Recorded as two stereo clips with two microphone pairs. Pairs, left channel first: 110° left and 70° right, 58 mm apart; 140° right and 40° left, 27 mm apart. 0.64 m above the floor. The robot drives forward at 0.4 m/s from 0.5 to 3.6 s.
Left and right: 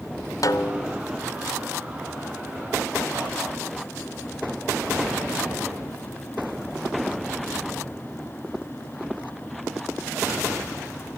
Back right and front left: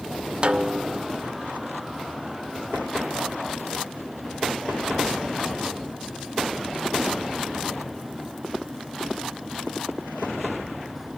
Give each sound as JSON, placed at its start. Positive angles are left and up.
{"t": 0.4, "sound": "a snare drum", "azimuth_deg": 95, "distance_m": 0.8}